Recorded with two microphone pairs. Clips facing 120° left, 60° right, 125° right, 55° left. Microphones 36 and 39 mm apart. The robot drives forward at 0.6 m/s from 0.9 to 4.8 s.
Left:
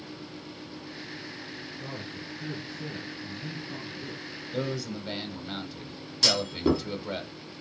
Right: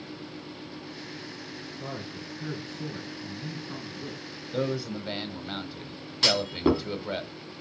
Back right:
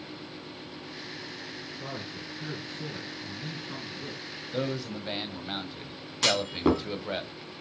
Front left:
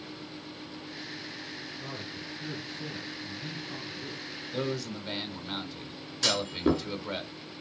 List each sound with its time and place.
1.8 s a man speaking: 80° right, 4 m; by 4.3 s 105° right, 4 m
4.5 s a man speaking: 75° right, 1.2 m; by 7.2 s 100° right, 1.2 m
6.2 s a clunk: 115° right, 1.9 m